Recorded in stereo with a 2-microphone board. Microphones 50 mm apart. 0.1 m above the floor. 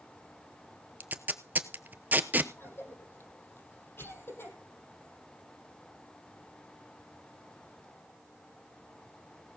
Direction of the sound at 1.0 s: 35° right (ahead or behind).